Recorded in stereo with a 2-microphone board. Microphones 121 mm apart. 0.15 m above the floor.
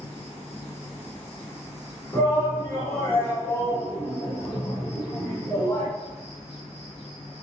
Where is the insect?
55° left (ahead or behind), 1.8 m.